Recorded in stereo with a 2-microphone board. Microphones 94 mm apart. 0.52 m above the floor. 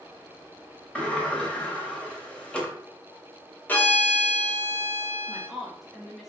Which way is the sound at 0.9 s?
10° left (ahead or behind).